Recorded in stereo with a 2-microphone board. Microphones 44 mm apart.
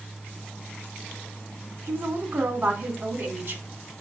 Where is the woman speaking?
60° right (ahead or behind), 1.9 m.